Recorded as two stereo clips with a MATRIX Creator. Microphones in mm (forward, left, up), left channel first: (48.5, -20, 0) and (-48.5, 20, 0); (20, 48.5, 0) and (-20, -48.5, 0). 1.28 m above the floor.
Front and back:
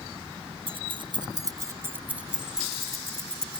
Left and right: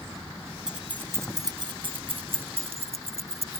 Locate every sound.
0.7 s keys jangling: 165° left; by 3.6 s 105° right